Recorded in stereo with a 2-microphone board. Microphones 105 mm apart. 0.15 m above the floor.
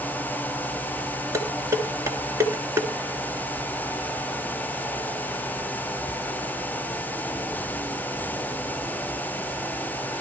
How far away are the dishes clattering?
About 1.2 m.